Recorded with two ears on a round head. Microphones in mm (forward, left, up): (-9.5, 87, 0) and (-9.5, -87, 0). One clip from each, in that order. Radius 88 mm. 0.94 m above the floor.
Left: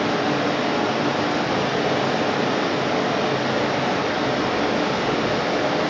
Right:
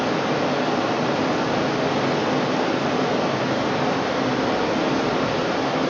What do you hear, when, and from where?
0.0 s running water: 75° left (ahead or behind), 6.5 m